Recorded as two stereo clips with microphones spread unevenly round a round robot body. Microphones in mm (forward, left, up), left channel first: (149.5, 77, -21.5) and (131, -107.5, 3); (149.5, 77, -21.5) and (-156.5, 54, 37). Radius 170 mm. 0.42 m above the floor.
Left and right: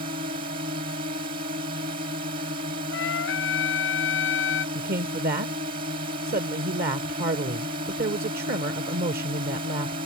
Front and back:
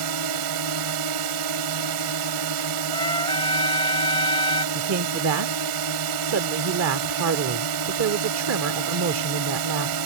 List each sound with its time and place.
0.0 s a drone: 155° right
2.9 s a trumpet: 80° left
4.8 s a man speaking: 130° right